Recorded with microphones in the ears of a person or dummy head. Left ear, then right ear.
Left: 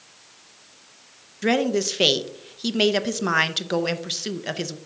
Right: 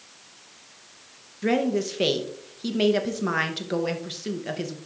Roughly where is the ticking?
I don't hear ticking.